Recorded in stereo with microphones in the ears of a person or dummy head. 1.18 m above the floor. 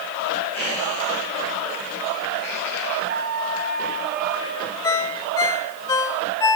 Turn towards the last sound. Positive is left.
turn(degrees=10)  # may be behind; listen again after turning